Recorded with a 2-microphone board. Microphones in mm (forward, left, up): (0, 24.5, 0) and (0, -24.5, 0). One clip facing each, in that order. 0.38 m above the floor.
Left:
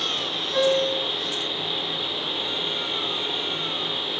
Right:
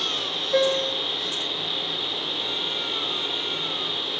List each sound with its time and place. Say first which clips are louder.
0.5 s a piano: left 1 dB; 50° right (ahead or behind), 1.1 m